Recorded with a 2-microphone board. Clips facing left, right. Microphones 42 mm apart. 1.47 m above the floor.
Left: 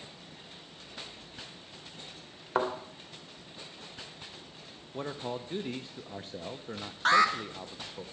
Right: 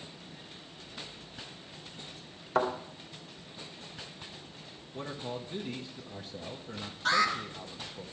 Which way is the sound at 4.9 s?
35° left (ahead or behind).